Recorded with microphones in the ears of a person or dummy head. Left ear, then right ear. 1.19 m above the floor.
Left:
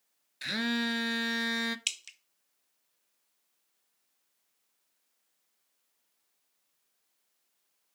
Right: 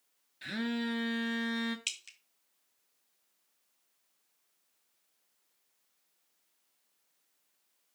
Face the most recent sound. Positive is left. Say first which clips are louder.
# left 3 dB
turn(degrees=15)  # may be behind; listen again after turning